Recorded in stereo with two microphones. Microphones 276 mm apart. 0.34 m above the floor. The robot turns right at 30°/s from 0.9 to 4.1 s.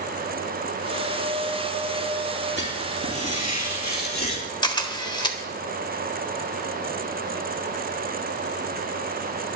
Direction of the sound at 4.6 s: 15° left (ahead or behind).